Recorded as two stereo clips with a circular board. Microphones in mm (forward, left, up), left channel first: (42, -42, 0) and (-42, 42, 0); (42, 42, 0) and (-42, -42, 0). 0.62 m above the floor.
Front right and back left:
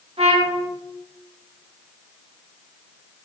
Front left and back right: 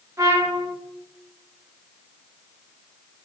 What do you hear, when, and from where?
0.2 s a trumpet: 165° left, 0.6 m